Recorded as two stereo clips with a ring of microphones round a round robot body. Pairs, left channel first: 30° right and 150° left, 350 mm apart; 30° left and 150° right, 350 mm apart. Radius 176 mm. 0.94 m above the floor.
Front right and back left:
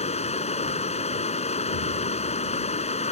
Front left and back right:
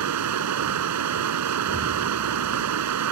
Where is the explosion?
60° right.